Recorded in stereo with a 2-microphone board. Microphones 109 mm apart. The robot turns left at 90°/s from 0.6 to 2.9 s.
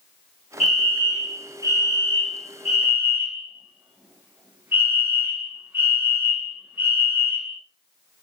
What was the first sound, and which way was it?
A fire alarm, straight behind.